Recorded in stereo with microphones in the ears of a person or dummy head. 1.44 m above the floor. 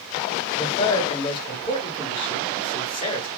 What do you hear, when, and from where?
0.6 s a man speaking: 35° left (ahead or behind), 1.1 m